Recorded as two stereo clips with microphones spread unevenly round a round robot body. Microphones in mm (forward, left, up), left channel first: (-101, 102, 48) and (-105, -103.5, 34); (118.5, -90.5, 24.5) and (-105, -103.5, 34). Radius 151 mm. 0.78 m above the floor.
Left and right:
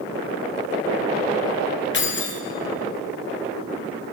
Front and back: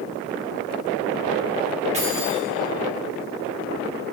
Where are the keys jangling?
115° left, 1.2 m.